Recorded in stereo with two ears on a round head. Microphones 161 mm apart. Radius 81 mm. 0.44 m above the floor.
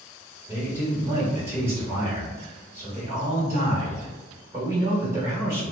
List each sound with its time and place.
0.5 s a man speaking: 15° right (ahead or behind), 1.3 m